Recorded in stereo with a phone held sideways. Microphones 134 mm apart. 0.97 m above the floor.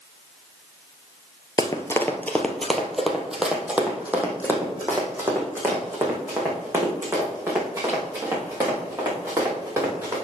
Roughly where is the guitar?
I don't hear a guitar.